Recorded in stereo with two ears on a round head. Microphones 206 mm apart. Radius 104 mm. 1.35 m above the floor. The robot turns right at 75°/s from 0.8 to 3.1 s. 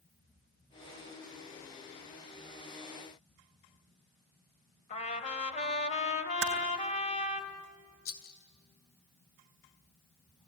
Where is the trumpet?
30° left (ahead or behind), 2 m.